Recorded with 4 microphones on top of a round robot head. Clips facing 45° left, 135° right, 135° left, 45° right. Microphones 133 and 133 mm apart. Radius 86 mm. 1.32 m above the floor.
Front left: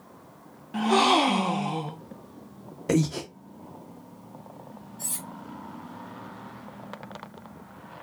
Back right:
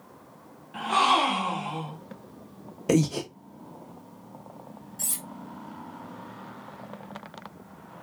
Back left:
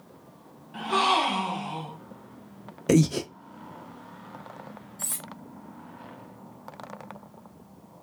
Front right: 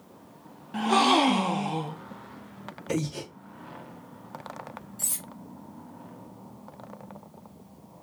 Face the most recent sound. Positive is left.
turn(degrees=-115)